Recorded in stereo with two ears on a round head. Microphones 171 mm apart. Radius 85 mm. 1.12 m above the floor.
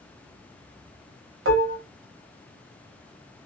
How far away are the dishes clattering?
About 1.3 m.